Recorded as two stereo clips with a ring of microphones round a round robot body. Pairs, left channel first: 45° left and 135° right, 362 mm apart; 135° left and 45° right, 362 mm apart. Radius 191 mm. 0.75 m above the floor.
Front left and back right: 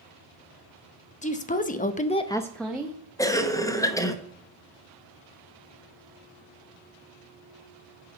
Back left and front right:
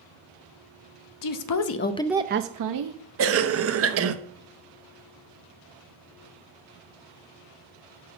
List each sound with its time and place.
1.2 s a woman speaking: 115° left, 1.1 m; by 3.0 s 50° right, 1.1 m
3.2 s a cough: 30° right, 1.1 m